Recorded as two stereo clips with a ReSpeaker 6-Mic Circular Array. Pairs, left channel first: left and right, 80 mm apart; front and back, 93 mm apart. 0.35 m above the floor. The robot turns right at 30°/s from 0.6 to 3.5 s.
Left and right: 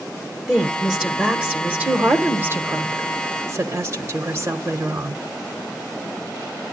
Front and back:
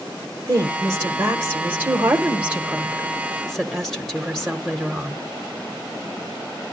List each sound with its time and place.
0.5 s a woman speaking: 170° right, 1.1 m; by 5.2 s 85° right, 1.1 m